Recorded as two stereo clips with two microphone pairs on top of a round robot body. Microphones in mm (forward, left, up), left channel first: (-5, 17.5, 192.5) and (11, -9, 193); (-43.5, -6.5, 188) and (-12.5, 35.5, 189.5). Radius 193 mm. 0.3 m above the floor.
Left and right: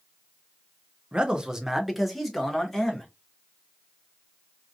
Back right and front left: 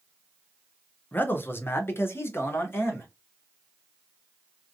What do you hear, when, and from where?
1.1 s a man speaking: 100° right, 1.0 m; by 3.1 s 165° right, 1.8 m